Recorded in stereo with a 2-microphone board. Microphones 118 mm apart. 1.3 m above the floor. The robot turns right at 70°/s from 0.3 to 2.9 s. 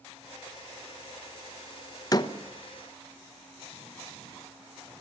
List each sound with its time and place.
2.1 s a door slam: 30° left (ahead or behind), 0.8 m; by 2.3 s 45° left (ahead or behind), 0.8 m